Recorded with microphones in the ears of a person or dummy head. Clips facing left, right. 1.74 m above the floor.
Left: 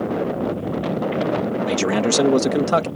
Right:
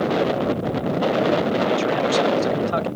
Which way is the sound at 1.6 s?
60° left (ahead or behind).